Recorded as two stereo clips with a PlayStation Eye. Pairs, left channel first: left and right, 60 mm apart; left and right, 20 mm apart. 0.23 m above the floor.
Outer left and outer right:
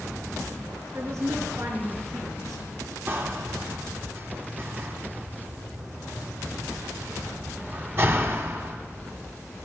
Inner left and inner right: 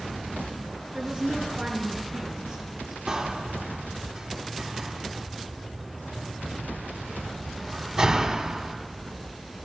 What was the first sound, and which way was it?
A woman speaking, 60° right (ahead or behind).